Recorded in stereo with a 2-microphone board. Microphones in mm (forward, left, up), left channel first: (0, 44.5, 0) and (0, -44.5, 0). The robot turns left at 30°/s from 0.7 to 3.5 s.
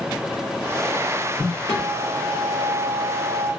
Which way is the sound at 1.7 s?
90° left.